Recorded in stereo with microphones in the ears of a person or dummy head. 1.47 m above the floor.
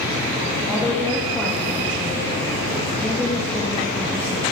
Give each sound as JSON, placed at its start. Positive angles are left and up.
{"t": 0.7, "sound": "a woman speaking", "side_deg": 10, "distance_m": 1.6}